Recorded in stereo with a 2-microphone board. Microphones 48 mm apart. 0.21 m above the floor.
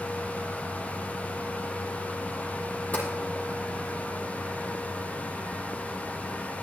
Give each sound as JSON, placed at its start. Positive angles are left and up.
{"t": 2.9, "sound": "tapping", "side_deg": 35, "distance_m": 6.5}